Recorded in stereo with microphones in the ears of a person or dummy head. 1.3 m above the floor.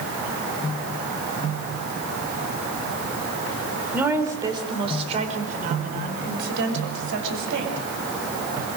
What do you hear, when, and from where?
3.9 s a woman speaking: 10° right (ahead or behind), 3.5 m; by 7.8 s 70° right (ahead or behind), 5.5 m